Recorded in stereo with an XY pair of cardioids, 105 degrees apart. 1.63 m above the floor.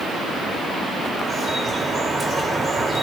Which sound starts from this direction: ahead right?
Dripping, at 1.2 s.